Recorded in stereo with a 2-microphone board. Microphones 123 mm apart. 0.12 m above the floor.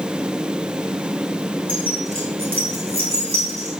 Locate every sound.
1.7 s keys jangling: 40° right (ahead or behind), 5.5 m; by 3.7 s 55° right (ahead or behind), 5.5 m